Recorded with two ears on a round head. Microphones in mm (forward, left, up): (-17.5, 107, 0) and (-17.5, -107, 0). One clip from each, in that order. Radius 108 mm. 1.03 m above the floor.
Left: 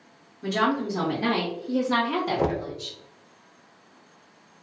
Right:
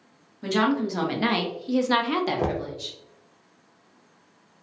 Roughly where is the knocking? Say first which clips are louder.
Left 1 dB; centre.